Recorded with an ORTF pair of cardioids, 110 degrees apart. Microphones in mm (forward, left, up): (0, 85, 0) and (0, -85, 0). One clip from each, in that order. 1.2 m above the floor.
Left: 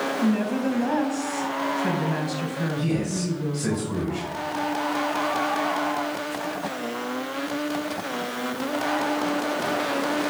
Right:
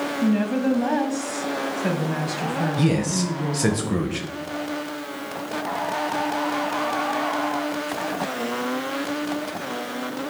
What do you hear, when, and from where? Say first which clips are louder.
0.2 s a woman speaking: right 2 dB; 10° right, 0.6 m
2.8 s a man speaking: right 4 dB; 50° right, 0.6 m